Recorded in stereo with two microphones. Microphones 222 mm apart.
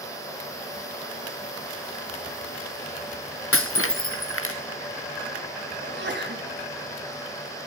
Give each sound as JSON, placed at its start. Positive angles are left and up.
{"t": 3.5, "sound": "breaking glass", "side_deg": 75, "distance_m": 1.3}
{"t": 5.8, "sound": "a sneeze", "side_deg": -55, "distance_m": 1.8}